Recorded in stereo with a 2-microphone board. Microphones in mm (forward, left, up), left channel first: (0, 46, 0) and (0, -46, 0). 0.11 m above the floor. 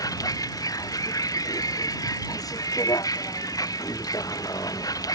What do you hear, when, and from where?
0.0 s a vehicle: 40° left (ahead or behind)